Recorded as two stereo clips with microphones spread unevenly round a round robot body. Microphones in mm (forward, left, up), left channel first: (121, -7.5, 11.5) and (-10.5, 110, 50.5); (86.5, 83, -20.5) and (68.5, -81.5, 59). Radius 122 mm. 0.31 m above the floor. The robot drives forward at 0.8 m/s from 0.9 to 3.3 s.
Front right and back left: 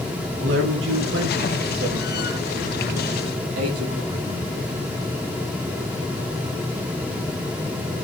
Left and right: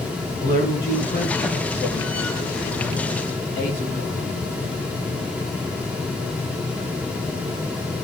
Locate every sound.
0.4 s a man speaking: 150° left, 4 m; by 4.5 s 160° left, 5.5 m